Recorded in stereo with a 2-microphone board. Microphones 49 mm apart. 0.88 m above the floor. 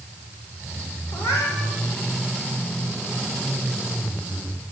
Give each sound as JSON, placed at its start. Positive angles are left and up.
{"t": 1.1, "sound": "a cat meowing", "side_deg": 75, "distance_m": 9.5}